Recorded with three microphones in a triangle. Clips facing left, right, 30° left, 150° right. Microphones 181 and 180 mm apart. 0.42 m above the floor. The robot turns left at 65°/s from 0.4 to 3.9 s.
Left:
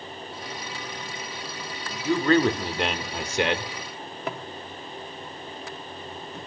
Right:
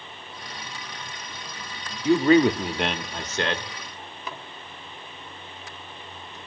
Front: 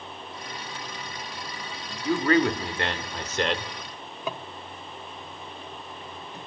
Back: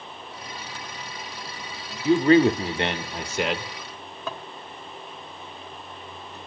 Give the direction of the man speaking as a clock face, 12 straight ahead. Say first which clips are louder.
Right 3 dB, back 6 dB; 4 o'clock.